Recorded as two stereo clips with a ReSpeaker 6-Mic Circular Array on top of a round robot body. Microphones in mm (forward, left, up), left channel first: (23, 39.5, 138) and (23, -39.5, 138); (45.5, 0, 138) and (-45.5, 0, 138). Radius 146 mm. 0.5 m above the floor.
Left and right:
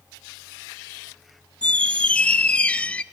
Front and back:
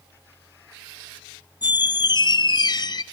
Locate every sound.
1.6 s a squeak: 20° left, 0.6 m